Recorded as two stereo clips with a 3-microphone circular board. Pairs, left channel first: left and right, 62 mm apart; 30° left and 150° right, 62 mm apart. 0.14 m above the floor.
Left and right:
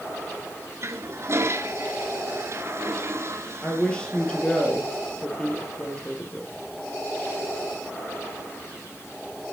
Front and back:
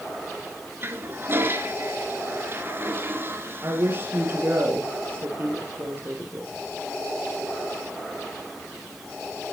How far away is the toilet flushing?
About 1.6 m.